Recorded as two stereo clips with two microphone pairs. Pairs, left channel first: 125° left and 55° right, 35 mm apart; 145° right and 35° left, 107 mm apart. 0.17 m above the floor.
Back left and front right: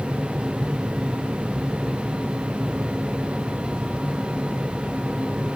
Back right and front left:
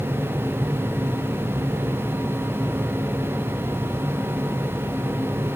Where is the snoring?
I don't hear snoring.